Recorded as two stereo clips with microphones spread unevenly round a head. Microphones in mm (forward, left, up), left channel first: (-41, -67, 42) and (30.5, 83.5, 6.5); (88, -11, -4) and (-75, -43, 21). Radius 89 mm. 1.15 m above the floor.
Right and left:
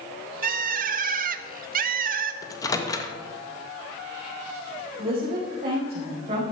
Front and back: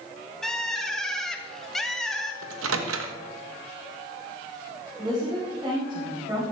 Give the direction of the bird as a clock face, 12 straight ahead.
9 o'clock.